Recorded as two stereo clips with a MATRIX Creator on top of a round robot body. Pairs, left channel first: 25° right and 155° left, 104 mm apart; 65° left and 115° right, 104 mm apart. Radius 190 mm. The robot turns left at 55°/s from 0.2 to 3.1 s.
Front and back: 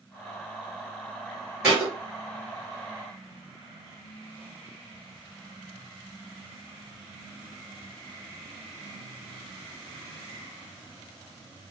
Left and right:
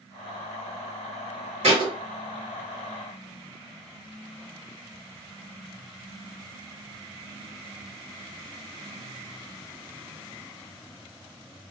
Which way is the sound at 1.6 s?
125° right.